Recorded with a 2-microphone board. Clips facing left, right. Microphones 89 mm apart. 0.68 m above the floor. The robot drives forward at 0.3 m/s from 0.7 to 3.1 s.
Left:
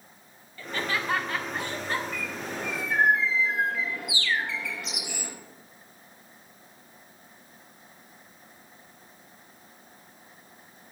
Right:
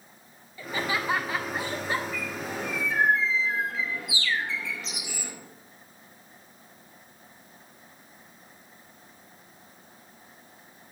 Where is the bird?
60° left (ahead or behind), 4.5 m.